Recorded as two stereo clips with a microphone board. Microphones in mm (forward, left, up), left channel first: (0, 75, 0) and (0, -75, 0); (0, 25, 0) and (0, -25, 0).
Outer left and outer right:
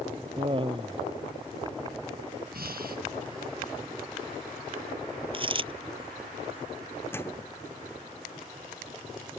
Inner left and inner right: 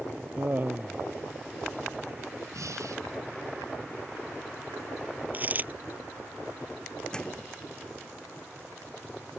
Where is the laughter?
35° right (ahead or behind).